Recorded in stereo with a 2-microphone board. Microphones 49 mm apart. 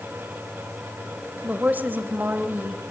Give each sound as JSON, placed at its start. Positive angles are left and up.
{"t": 1.4, "sound": "a woman speaking", "side_deg": -30, "distance_m": 2.5}